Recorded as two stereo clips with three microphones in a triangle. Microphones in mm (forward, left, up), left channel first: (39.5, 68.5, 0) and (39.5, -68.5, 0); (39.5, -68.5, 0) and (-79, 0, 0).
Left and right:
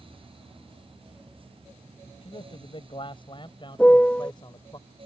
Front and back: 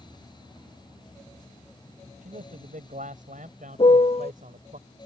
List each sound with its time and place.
2.2 s a man speaking: 135° left; by 4.8 s 145° left
3.8 s a piano: 10° left